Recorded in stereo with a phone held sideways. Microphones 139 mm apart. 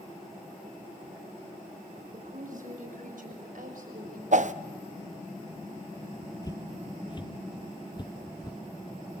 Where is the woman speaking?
65° right (ahead or behind), 6 m; by 4.2 s 75° right (ahead or behind), 6.5 m.